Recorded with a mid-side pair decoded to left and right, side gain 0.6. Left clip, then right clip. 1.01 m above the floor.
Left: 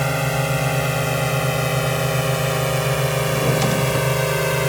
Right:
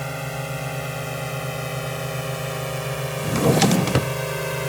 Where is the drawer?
35° right.